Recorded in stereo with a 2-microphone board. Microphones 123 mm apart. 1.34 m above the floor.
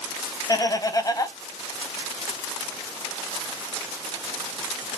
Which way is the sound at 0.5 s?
30° left (ahead or behind).